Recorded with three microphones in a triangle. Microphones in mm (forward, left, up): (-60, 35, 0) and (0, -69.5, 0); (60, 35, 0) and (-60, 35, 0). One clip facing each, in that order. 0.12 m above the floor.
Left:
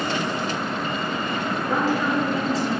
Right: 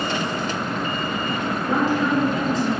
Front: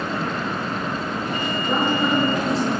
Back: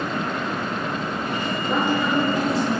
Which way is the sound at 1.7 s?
10° right.